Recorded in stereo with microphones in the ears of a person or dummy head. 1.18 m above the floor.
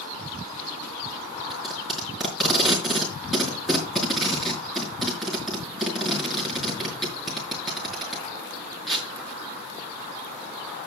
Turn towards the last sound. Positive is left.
turn(degrees=0)  # may be behind; listen again after turning